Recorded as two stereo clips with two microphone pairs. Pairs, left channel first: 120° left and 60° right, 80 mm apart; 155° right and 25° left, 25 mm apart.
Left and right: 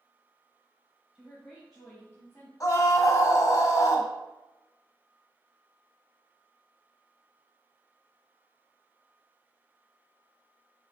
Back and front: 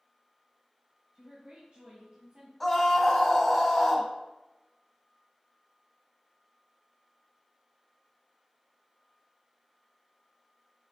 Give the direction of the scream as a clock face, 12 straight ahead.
8 o'clock.